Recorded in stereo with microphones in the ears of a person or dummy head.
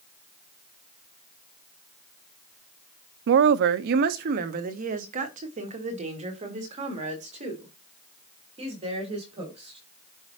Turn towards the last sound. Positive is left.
turn(degrees=-35)  # may be behind; listen again after turning